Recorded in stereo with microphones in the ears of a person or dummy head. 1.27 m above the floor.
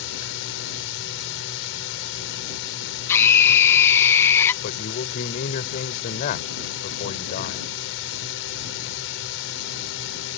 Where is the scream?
15° left (ahead or behind).